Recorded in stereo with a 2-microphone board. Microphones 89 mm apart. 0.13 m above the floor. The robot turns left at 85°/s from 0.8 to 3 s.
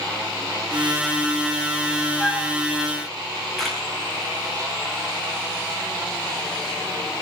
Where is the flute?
5° right (ahead or behind), 5.5 m; by 2.5 s 25° left (ahead or behind), 5.5 m.